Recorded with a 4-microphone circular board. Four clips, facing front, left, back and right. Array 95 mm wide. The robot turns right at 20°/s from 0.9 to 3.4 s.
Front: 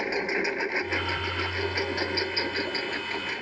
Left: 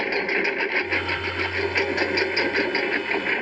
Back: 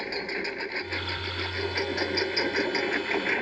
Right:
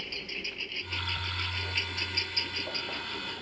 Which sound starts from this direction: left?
A lawn mower, at 0.0 s.